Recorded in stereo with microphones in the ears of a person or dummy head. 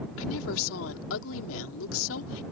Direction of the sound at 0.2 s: 80° left.